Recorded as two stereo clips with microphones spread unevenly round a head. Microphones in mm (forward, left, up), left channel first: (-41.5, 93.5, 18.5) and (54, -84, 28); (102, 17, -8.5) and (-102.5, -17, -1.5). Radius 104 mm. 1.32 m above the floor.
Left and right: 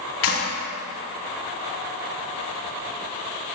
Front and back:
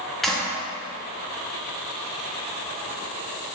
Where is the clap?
100° left, 2.5 m.